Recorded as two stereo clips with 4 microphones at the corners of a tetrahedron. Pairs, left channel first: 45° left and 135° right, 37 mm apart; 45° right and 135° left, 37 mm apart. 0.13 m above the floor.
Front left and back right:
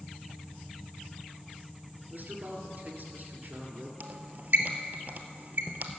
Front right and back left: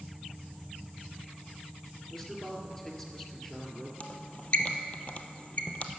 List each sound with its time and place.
2.1 s a man speaking: 120° right, 1.9 m
4.0 s a squeak: 95° right, 0.7 m